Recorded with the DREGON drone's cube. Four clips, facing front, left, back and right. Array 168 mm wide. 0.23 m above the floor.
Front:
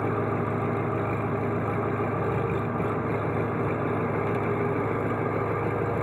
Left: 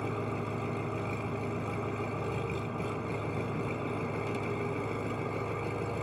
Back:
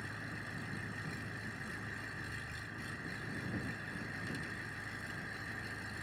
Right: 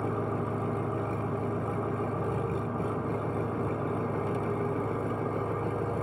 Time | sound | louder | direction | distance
0.0 | an engine running | right 4 dB, front 20 dB | 15° right | ?